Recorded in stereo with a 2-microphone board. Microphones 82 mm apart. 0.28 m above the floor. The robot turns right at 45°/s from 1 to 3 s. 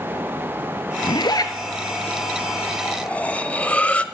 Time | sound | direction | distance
1.0 | a zipper | 70° left (ahead or behind) | 1.0 m
2.9 | cutlery clinking | 20° left (ahead or behind) | 0.6 m